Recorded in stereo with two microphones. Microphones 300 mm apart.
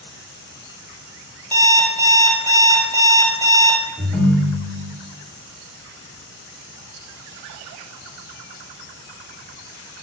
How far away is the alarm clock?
About 1.0 m.